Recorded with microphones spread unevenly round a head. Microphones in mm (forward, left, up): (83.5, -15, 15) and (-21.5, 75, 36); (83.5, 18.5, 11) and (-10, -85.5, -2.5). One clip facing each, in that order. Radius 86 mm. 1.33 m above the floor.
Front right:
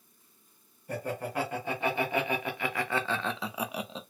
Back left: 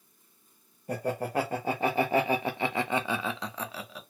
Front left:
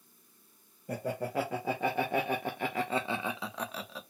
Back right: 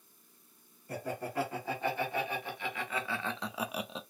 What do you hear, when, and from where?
0.9 s laughter: 85° left, 1.4 m; by 4.0 s 85° right, 0.6 m